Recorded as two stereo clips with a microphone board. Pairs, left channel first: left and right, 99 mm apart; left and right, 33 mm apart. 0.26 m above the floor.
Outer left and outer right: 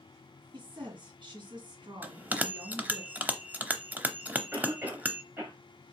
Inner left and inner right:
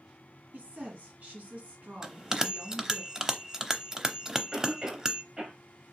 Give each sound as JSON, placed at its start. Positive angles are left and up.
{"t": 0.5, "sound": "a woman speaking", "side_deg": -55, "distance_m": 2.5}
{"t": 2.0, "sound": "a bell", "side_deg": -15, "distance_m": 0.6}
{"t": 4.5, "sound": "a cough", "side_deg": -25, "distance_m": 1.5}